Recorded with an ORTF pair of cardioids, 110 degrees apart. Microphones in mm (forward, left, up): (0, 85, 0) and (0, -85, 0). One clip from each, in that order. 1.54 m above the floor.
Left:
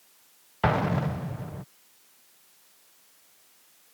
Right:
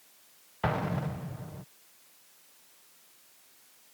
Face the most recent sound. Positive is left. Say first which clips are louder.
# left 6 dB
turn(degrees=30)